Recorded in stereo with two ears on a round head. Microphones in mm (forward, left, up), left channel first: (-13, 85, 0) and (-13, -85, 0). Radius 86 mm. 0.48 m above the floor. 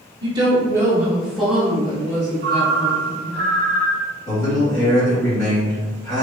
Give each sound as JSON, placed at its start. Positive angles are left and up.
{"t": 0.2, "sound": "a woman speaking", "side_deg": -25, "distance_m": 0.8}
{"t": 2.4, "sound": "a ringtone", "side_deg": 5, "distance_m": 1.6}
{"t": 4.3, "sound": "a man speaking", "side_deg": 25, "distance_m": 1.9}